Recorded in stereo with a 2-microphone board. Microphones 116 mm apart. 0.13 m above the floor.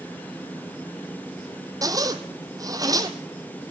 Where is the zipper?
30° right (ahead or behind), 1.3 m.